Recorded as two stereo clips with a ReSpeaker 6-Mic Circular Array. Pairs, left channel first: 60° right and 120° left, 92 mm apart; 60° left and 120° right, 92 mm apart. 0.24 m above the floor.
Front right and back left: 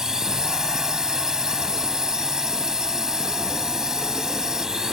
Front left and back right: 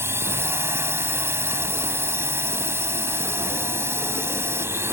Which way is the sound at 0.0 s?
160° right.